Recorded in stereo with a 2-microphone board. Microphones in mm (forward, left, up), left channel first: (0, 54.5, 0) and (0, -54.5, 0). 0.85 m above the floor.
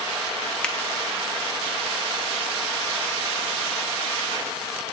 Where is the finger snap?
10° left (ahead or behind), 0.7 m.